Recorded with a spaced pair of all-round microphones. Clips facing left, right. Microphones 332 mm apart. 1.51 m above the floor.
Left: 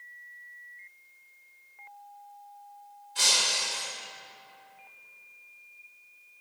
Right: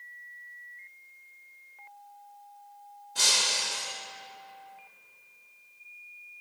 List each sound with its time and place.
3.1 s breaking glass: 60° right (ahead or behind), 2.5 m